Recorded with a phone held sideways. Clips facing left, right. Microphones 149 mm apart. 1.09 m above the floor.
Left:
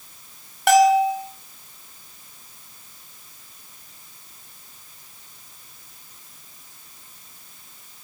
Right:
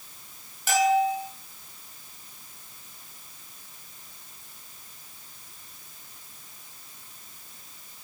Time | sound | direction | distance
0.7 | a bell | 75° left (ahead or behind) | 4 m